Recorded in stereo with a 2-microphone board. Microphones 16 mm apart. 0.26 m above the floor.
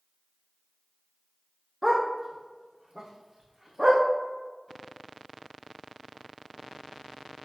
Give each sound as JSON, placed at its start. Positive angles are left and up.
{"t": 1.8, "sound": "a dog barking", "side_deg": -10, "distance_m": 2.5}